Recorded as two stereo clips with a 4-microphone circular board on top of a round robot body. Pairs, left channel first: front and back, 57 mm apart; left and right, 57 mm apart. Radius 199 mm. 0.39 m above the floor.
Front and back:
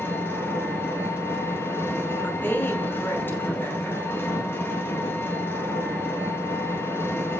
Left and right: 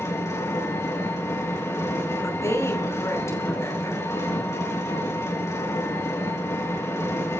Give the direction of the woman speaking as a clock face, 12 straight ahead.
10 o'clock.